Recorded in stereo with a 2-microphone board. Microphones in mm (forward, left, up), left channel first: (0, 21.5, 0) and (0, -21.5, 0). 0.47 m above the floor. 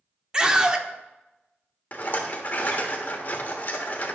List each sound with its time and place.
0.3 s a scream: 20° right (ahead or behind), 0.7 m
1.9 s a rattle: 40° left (ahead or behind), 1.2 m